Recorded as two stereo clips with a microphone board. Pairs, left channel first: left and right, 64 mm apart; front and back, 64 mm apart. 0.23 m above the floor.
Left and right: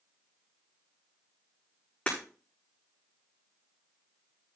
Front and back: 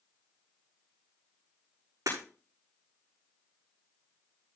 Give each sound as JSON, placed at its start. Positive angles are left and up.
{"t": 2.1, "sound": "breaking glass", "azimuth_deg": 160, "distance_m": 6.5}